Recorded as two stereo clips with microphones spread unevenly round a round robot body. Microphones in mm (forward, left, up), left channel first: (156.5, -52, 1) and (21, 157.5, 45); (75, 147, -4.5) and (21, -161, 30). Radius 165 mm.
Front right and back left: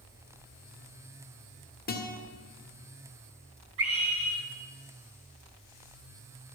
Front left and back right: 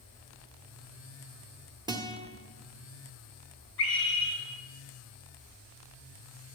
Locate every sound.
1.9 s a guitar: 20° right, 1.7 m
3.8 s a scream: 90° left, 5.5 m